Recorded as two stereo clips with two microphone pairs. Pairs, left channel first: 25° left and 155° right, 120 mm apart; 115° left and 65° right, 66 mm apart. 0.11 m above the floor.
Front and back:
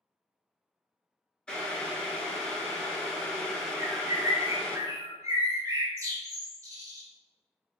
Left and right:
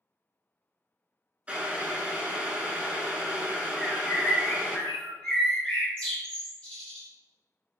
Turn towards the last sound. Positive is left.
turn(degrees=180)